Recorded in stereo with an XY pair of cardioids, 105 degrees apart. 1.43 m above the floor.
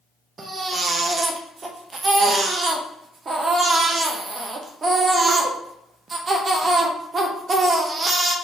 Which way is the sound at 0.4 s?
40° right.